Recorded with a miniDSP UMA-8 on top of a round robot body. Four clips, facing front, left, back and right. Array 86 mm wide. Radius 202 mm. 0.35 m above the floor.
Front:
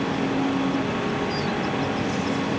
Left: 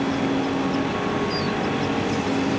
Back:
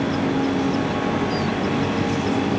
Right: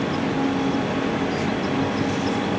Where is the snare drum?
No snare drum in this recording.